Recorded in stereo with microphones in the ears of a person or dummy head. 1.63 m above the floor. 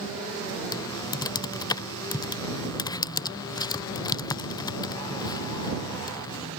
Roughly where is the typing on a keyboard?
Left.